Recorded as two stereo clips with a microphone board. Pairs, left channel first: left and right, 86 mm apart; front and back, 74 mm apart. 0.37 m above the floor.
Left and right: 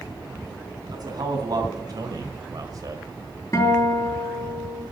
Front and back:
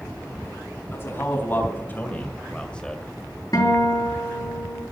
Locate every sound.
0.9 s a man speaking: 55° right, 3.5 m; by 3.0 s 80° right, 1.5 m
3.5 s a guitar: 40° left, 6 m